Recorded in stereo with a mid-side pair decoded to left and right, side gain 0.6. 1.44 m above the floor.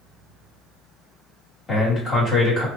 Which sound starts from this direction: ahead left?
A man speaking, at 1.7 s.